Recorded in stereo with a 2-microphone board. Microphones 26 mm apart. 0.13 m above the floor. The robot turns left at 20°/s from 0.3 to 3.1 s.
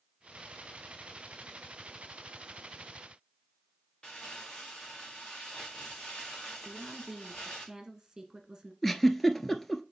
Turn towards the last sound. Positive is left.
turn(degrees=5)  # may be behind; listen again after turning